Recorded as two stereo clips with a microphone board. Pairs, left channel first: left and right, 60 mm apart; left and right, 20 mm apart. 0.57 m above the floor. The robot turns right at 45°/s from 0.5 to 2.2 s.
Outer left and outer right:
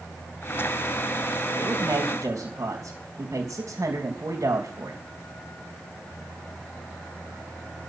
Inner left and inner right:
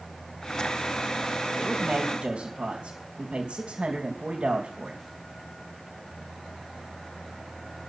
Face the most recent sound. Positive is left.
turn(degrees=-50)  # may be behind; listen again after turning